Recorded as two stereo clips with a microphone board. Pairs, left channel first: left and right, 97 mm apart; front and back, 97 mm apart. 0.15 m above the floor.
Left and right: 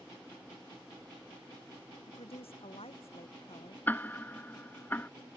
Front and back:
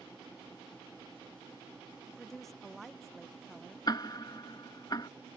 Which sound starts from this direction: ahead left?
Ticking, at 3.9 s.